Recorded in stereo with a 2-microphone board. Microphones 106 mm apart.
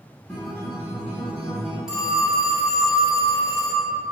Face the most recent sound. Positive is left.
turn(degrees=-5)  # may be behind; listen again after turning